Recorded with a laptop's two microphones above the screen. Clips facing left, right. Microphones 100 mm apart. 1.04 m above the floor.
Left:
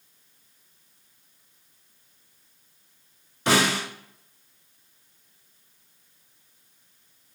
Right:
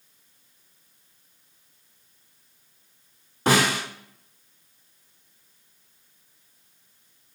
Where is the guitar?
No guitar in this recording.